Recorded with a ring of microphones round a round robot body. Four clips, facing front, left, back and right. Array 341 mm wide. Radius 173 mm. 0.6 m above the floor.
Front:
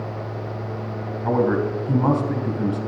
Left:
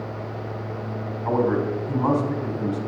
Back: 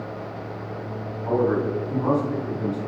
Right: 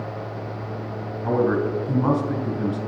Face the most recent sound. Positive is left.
turn(degrees=-20)